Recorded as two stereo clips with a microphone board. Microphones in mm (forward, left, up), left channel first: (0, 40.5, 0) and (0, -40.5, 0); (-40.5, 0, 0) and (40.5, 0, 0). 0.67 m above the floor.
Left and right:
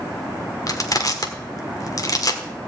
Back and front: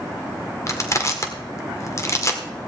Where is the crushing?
130° left, 1.5 m.